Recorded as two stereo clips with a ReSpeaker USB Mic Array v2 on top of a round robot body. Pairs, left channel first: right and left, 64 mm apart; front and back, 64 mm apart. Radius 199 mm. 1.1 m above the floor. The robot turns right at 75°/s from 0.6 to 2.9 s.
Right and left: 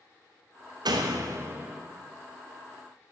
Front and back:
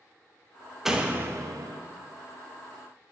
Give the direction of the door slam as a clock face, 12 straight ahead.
9 o'clock.